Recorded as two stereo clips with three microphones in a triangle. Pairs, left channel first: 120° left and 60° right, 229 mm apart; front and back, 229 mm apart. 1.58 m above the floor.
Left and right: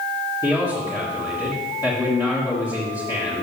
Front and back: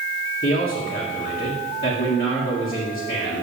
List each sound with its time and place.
0.4 s a man speaking: 45° left, 1.9 m